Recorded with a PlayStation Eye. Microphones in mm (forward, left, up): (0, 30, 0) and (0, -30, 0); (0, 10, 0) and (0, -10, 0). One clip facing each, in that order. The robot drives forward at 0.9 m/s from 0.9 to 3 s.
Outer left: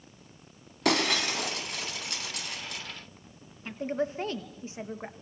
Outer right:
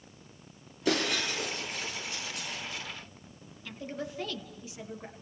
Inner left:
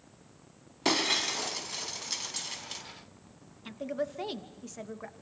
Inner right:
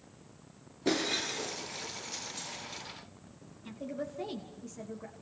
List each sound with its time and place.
0.8 s breaking glass: 70° left (ahead or behind), 4.5 m
3.6 s a woman speaking: 35° left (ahead or behind), 2.5 m